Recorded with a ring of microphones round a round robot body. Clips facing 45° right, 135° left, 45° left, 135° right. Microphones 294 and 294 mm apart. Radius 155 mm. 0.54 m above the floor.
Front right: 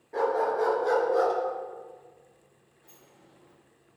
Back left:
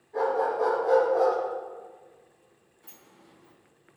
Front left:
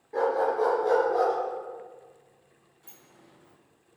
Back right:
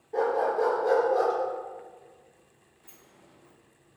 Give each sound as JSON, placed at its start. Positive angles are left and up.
{"t": 0.1, "sound": "a dog barking", "azimuth_deg": -25, "distance_m": 4.0}
{"t": 2.8, "sound": "a sliding door", "azimuth_deg": 100, "distance_m": 3.0}